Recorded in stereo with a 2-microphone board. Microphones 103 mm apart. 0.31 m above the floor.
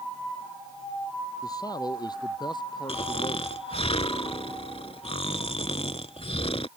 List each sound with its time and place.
1.4 s a man speaking: 40° left (ahead or behind); by 3.5 s 50° left (ahead or behind)
2.9 s snoring: 75° left (ahead or behind)